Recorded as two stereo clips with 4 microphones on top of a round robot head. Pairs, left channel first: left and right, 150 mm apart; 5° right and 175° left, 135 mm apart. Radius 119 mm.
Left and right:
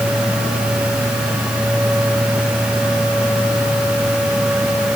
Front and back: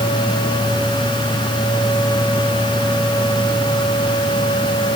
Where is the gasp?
I don't hear a gasp.